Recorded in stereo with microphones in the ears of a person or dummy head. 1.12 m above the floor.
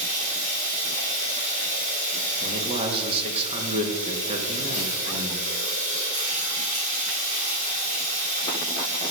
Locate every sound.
0.0 s running water: 35° right (ahead or behind), 2.5 m
2.4 s a man speaking: 30° right (ahead or behind), 1.7 m